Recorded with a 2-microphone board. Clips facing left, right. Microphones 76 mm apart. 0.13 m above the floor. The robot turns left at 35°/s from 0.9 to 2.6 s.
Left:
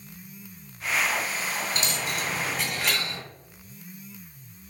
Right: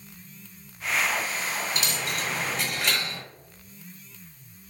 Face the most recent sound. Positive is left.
turn(degrees=5)  # may be behind; listen again after turning